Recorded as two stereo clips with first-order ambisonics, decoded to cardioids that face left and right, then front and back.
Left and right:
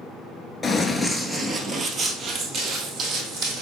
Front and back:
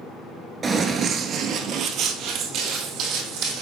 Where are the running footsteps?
140° left, 0.6 m; by 3.6 s 140° right, 1.6 m.